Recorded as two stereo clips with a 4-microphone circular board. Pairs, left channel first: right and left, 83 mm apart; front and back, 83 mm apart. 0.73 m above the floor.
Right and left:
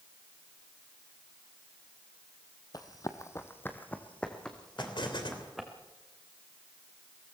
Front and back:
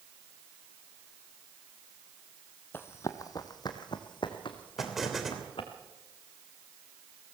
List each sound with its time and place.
2.7 s running footsteps: 60° right, 1.5 m; by 5.7 s straight ahead, 3.5 m
4.8 s an explosion: 95° right, 3 m